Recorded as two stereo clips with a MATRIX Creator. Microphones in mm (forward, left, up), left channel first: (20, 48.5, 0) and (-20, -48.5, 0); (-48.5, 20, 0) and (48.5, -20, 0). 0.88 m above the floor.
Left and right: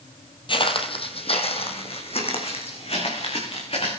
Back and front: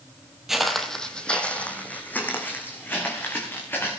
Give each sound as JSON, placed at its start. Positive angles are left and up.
{"t": 0.5, "sound": "footsteps", "azimuth_deg": 65, "distance_m": 1.4}